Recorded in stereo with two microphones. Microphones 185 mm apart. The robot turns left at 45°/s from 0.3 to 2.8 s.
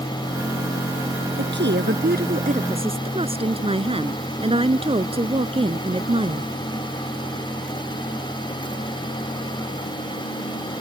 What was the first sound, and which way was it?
A woman speaking, 85° right.